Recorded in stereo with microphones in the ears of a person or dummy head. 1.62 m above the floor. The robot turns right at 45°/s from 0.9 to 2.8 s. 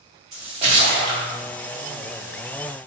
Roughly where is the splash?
Right.